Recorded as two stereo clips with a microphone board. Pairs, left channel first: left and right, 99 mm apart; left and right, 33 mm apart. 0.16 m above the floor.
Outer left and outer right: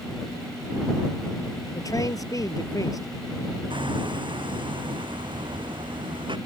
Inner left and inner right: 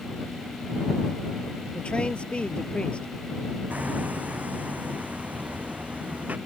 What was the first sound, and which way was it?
A man speaking, 40° left (ahead or behind).